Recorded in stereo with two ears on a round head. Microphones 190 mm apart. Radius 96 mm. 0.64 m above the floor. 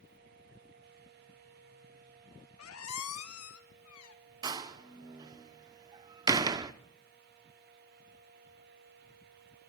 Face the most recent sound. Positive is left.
turn(degrees=-20)  # may be behind; listen again after turning